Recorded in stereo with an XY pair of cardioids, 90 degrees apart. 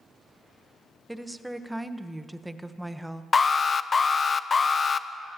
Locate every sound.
1.1 s a woman speaking: 10° right, 0.9 m
3.3 s an alarm: 40° left, 0.5 m